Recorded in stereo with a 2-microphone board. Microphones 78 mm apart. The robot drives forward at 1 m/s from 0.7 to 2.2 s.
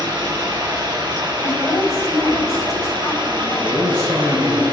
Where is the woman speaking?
55° left (ahead or behind), 3.5 m; by 4.6 s 45° left (ahead or behind), 4 m.